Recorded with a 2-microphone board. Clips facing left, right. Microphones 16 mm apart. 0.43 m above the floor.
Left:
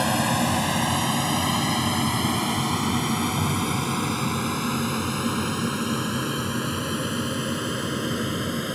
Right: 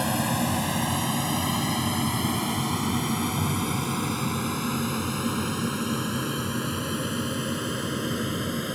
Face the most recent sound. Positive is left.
turn(degrees=15)  # may be behind; listen again after turning